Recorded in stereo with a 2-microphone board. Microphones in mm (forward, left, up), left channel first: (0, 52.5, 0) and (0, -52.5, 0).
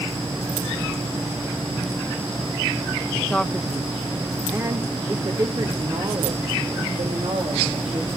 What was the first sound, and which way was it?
A man speaking, 10° left (ahead or behind).